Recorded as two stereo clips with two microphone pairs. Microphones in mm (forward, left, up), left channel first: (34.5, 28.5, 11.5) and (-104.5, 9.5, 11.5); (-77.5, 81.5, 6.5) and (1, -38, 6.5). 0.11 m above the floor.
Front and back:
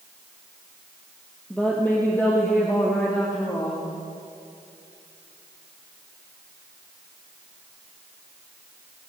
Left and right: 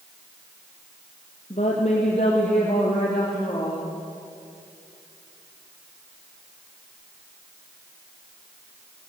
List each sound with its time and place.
1.5 s a woman speaking: 90° left, 3.5 m; by 3.9 s 70° left, 5.5 m